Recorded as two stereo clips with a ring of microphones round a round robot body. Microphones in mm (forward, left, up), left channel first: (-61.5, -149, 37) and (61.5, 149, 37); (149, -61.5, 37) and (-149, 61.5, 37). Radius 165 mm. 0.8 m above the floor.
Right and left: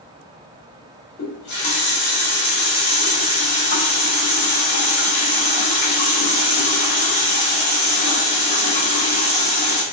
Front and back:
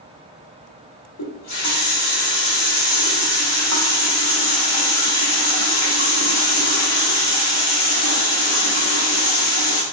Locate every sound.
1.2 s a running tap: 65° right, 0.9 m